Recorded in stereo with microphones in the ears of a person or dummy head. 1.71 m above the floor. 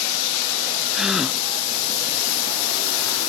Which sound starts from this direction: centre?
A gasp, at 0.9 s.